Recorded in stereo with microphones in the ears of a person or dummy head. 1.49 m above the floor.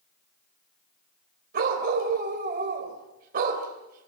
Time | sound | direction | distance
1.5 | a dog barking | 55° right (ahead or behind) | 3.5 m